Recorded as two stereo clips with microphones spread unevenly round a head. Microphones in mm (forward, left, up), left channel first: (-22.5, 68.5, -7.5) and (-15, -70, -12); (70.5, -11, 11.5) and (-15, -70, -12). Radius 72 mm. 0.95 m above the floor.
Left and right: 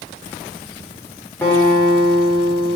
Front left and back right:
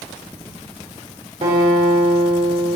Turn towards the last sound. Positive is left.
turn(degrees=170)